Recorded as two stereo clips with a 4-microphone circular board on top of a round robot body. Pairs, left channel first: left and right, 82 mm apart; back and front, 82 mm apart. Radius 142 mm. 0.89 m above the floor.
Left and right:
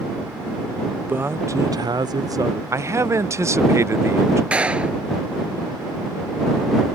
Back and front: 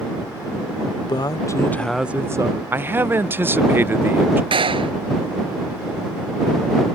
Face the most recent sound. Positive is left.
turn(degrees=-15)